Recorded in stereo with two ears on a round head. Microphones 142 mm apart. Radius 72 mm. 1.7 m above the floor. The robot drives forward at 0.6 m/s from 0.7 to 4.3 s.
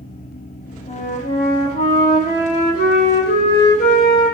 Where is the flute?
45° left (ahead or behind), 5.5 m; by 4.3 s 60° left (ahead or behind), 4 m.